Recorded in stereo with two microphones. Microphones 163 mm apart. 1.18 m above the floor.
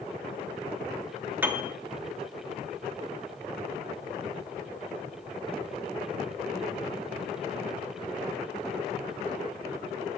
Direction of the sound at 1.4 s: 10° right (ahead or behind).